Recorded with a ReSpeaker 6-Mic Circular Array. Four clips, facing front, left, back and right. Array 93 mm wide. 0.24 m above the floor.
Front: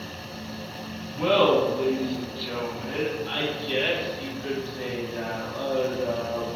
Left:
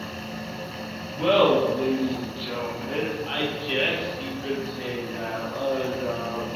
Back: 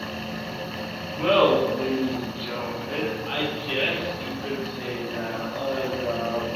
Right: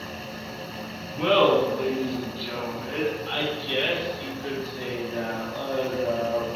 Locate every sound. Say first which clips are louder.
1.1 s laughter: even, back 1 dB; 140° right, 1.7 m; by 6.5 s 90° left, 3 m